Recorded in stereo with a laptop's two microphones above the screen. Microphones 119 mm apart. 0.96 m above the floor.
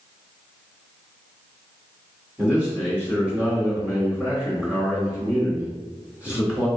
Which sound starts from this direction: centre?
A man speaking, at 2.4 s.